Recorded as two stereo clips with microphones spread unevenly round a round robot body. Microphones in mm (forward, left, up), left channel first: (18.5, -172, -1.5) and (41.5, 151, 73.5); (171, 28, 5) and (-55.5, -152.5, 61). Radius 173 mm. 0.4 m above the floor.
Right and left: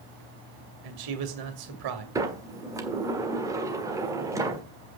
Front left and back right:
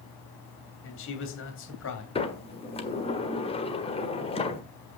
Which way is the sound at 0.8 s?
75° left.